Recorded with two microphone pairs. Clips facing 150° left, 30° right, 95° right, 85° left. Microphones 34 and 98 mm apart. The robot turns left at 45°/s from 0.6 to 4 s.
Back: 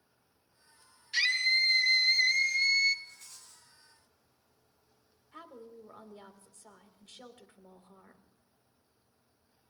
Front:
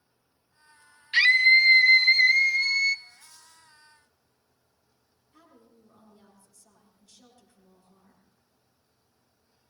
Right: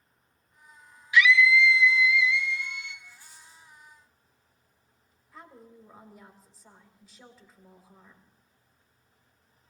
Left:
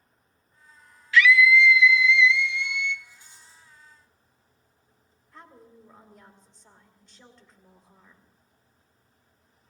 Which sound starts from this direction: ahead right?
A scream, at 1.1 s.